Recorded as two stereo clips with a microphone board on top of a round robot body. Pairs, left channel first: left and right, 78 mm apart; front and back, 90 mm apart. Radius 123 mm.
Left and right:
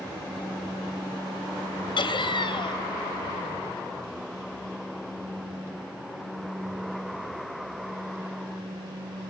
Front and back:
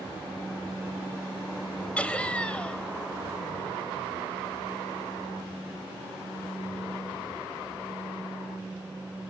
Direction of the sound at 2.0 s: 80° left.